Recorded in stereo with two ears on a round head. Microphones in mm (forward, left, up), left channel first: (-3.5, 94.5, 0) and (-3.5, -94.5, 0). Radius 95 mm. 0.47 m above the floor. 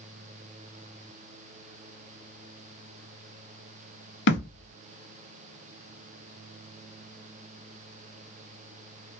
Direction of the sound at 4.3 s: 55° left (ahead or behind).